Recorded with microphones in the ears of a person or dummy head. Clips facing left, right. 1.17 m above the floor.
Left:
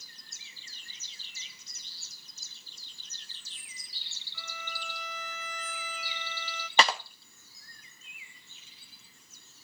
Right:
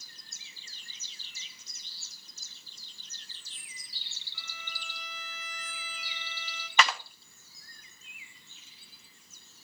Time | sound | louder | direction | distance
4.3 | a violin | left 6 dB | 80° left | 2 m
6.8 | a clap | left 2 dB | 25° left (ahead or behind) | 1.0 m